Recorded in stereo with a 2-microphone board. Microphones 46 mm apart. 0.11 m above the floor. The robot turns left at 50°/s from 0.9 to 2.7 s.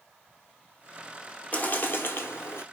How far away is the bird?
About 0.6 m.